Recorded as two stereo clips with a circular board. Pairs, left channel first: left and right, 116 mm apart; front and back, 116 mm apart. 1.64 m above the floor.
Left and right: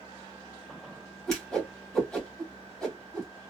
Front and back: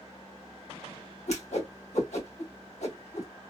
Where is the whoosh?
5° left, 1.9 m.